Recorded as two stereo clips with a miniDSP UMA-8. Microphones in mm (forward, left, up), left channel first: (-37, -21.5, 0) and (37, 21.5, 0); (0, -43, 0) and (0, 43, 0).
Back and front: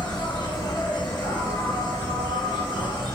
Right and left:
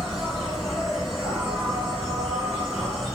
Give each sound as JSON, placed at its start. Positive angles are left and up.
{"t": 0.0, "sound": "an insect", "azimuth_deg": -175, "distance_m": 1.6}